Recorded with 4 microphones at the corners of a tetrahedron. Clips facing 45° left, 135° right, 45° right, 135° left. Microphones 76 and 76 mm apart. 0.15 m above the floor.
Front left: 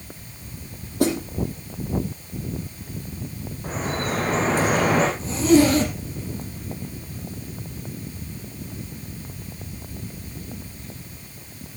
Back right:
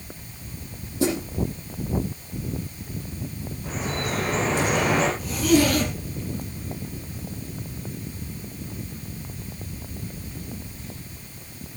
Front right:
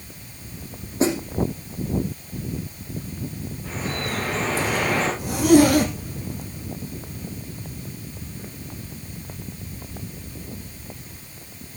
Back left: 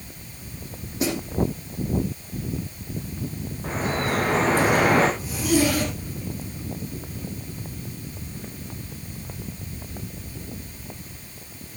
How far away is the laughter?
No laughter in this recording.